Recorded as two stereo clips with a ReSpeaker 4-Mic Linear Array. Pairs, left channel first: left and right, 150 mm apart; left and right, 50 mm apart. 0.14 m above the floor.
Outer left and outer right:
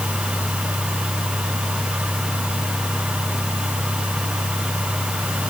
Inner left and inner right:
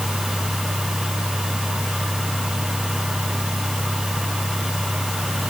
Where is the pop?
No pop in this recording.